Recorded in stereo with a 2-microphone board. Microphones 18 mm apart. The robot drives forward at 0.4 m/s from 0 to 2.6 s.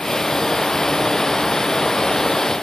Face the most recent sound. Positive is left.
No sound to turn to.